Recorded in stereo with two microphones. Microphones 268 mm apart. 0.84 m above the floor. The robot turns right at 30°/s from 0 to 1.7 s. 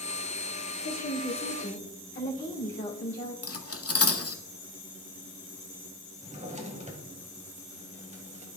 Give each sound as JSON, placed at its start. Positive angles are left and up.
{"t": 0.8, "sound": "a woman speaking", "side_deg": 70, "distance_m": 2.5}
{"t": 3.4, "sound": "cutlery clinking", "side_deg": 60, "distance_m": 0.8}
{"t": 6.2, "sound": "a drawer", "side_deg": -25, "distance_m": 1.4}